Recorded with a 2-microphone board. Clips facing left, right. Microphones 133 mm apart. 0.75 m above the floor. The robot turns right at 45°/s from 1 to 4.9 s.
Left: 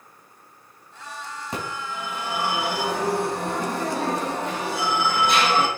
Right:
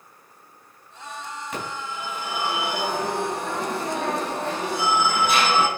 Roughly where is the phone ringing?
Ahead left.